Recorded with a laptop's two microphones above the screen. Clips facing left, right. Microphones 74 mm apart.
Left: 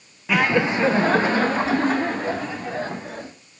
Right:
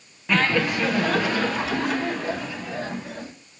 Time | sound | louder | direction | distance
0.3 | laughter | left 2 dB | 5° left (ahead or behind) | 0.5 m